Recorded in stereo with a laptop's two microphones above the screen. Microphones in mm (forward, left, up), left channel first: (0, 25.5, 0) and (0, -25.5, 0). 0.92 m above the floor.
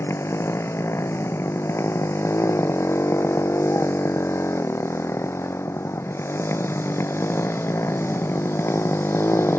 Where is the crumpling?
No crumpling in this recording.